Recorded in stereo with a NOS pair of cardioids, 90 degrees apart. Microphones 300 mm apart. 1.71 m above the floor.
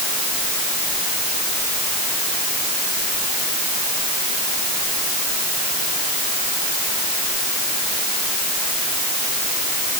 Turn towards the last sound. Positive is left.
No sound to turn to.